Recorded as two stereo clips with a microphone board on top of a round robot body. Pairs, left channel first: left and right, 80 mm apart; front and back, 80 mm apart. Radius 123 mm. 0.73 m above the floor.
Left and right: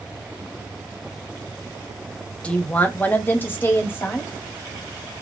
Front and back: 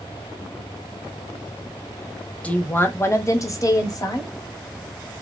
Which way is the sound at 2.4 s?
40° left.